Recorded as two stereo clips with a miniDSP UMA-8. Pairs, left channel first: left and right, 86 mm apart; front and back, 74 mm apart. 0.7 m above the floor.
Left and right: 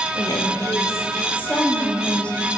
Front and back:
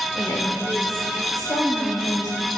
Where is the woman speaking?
55° left, 2 m; by 2.5 s 10° left, 3.5 m.